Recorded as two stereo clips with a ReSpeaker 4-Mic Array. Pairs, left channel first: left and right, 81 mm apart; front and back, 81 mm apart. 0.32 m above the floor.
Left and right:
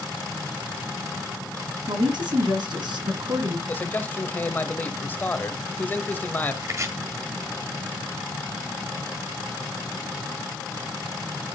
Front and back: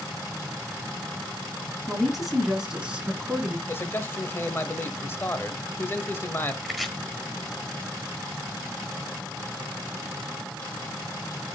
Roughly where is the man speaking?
Ahead left.